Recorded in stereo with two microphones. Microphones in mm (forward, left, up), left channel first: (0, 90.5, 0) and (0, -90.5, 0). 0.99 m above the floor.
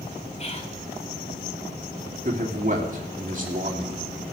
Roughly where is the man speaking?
Right.